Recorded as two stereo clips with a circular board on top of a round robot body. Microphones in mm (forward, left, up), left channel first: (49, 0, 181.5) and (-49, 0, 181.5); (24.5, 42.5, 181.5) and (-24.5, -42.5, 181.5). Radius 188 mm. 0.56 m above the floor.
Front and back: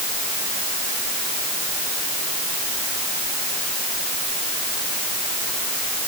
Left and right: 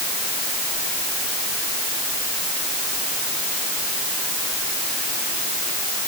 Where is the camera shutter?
I don't hear a camera shutter.